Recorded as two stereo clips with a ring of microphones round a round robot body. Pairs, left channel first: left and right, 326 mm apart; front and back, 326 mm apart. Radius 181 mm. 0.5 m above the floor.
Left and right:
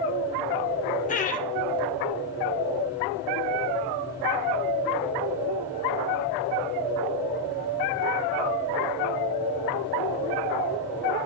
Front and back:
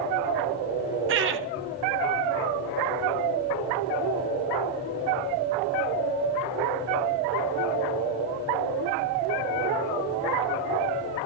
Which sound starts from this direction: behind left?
Laughter, at 1.1 s.